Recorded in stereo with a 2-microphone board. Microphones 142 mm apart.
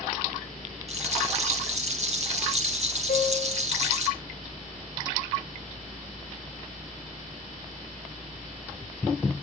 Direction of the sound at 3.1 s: 70° left (ahead or behind).